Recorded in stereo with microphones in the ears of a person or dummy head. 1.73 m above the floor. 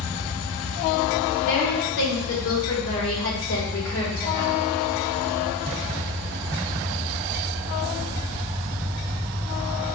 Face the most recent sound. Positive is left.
turn(degrees=75)  # may be behind; listen again after turning